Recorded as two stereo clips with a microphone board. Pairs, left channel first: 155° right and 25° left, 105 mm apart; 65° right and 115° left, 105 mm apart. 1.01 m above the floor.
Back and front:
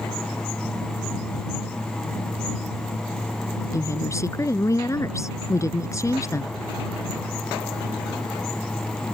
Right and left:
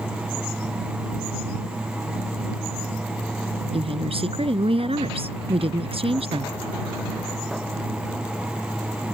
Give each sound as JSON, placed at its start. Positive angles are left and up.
{"t": 3.7, "sound": "a woman speaking", "azimuth_deg": 140}